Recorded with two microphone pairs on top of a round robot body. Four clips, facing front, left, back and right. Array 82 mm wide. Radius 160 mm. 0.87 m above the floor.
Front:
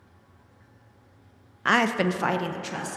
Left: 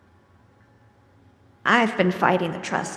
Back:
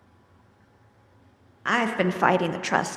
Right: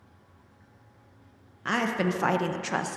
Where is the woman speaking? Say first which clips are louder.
Left 8 dB, front 1 dB; 70° left, 0.7 m; by 3.0 s 155° left, 0.7 m.